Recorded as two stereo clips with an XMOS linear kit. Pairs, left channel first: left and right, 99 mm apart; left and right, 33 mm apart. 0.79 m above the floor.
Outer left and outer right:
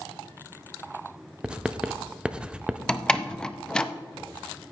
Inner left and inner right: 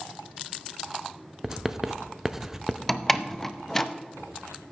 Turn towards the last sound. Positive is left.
turn(degrees=10)  # may be behind; listen again after turning